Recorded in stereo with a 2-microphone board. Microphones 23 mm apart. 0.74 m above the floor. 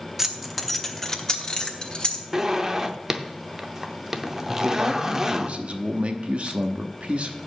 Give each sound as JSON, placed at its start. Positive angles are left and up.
{"t": 0.2, "sound": "keys jangling", "side_deg": -20, "distance_m": 0.8}
{"t": 2.3, "sound": "a zipper", "side_deg": -25, "distance_m": 0.7}
{"t": 4.5, "sound": "a man speaking", "side_deg": -60, "distance_m": 0.8}